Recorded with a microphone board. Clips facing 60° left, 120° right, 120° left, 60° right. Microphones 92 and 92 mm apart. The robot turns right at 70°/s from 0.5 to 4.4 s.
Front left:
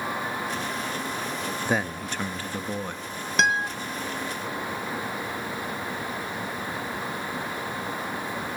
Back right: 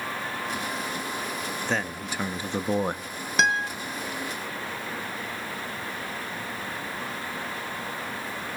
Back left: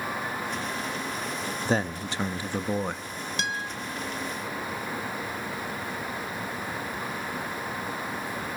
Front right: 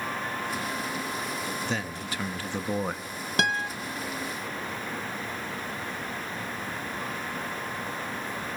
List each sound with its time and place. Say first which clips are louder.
1.6 s a man speaking: front left 3 dB, back left 5 dB; 125° left, 0.7 m; by 3.1 s 130° right, 0.7 m
3.4 s a guitar: even, front right 6 dB; 30° right, 1.0 m; by 3.7 s 10° right, 1.0 m